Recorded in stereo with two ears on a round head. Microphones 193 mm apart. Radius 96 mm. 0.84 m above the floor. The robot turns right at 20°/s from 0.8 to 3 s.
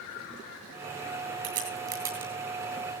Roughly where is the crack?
Right.